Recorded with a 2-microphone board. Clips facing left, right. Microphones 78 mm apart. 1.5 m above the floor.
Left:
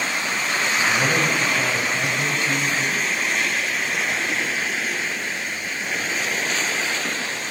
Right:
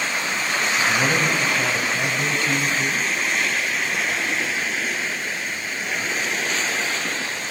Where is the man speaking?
5° left (ahead or behind), 8.5 m.